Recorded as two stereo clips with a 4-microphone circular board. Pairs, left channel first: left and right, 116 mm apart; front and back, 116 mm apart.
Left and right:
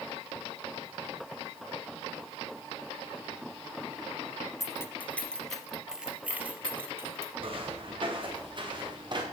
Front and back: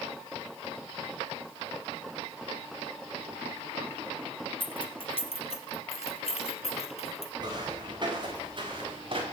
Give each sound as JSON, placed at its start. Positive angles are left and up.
{"t": 4.6, "sound": "keys jangling", "azimuth_deg": 35, "distance_m": 1.3}
{"t": 7.4, "sound": "footsteps", "azimuth_deg": -130, "distance_m": 6.0}